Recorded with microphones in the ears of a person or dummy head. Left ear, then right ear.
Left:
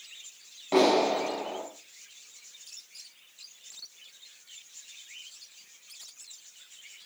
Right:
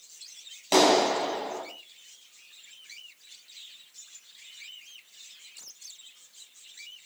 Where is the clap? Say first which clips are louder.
Right 2 dB; 80° right, 6 m.